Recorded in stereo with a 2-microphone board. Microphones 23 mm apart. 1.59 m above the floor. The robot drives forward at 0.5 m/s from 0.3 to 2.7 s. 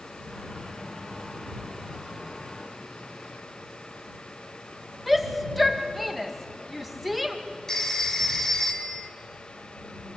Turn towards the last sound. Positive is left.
turn(degrees=20)  # may be behind; listen again after turning